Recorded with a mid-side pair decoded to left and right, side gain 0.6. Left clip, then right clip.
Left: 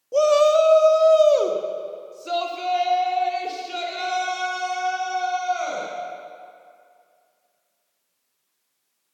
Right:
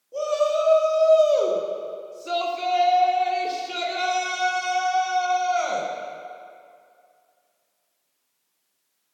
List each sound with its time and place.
0.1 s a shout: 55° left, 1.5 m; by 5.9 s 20° right, 5 m